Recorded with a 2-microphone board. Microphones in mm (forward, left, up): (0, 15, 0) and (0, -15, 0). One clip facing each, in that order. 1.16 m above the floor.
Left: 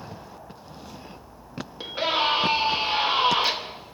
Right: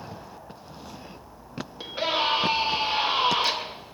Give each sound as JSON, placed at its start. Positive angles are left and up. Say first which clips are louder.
{"t": 1.8, "sound": "a scream", "louder": "left 2 dB", "side_deg": 10, "distance_m": 2.0}